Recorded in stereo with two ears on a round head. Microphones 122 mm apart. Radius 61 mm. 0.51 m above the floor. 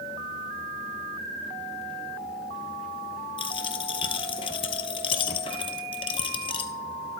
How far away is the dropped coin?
About 0.9 m.